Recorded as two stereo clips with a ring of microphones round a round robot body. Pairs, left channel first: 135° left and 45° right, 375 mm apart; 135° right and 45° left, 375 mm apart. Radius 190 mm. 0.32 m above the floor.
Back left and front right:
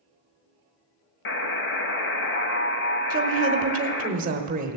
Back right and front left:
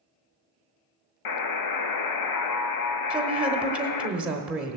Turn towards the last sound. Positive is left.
turn(degrees=-35)